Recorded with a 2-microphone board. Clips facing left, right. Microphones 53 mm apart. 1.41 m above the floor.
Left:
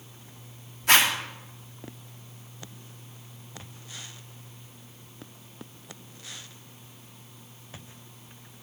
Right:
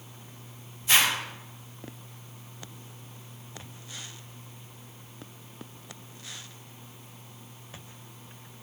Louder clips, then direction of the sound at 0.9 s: Left 3 dB; 70° left (ahead or behind).